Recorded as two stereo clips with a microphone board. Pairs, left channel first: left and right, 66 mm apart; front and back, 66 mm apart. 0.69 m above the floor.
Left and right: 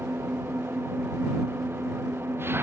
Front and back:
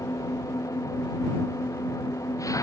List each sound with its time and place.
0.0 s an engine running: 35° right